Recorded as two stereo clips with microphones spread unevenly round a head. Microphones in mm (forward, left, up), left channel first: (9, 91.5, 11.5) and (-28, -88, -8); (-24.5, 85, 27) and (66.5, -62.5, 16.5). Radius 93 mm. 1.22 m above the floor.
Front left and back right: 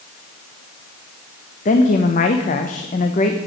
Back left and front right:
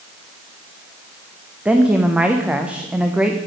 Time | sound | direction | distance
1.6 | a woman speaking | 25° left | 0.7 m